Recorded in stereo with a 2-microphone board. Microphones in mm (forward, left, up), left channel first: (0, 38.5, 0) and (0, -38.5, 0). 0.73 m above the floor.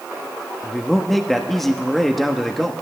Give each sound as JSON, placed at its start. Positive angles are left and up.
{"t": 0.6, "sound": "a man speaking", "side_deg": 5, "distance_m": 0.9}